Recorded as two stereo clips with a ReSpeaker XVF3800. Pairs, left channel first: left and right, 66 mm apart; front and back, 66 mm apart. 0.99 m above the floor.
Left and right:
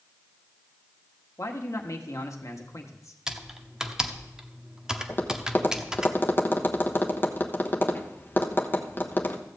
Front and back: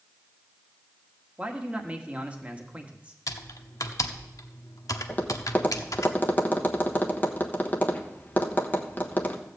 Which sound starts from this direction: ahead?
Typing on a keyboard, at 3.3 s.